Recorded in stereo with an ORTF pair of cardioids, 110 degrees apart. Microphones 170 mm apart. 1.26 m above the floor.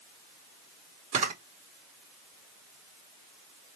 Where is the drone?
I don't hear a drone.